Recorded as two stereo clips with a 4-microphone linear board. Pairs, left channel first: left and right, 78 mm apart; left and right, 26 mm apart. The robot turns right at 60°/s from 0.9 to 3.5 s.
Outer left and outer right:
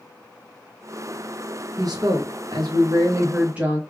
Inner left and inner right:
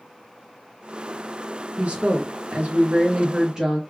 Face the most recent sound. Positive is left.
turn(degrees=-20)